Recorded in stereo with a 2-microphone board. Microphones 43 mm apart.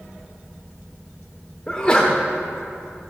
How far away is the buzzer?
I don't hear a buzzer.